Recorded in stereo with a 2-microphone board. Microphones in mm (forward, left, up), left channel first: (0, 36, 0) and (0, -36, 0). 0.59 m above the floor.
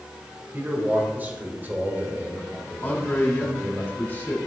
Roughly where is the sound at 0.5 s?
Right.